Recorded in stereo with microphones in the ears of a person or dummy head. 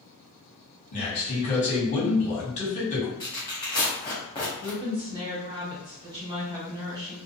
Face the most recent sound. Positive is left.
turn(degrees=-25)  # may be behind; listen again after turning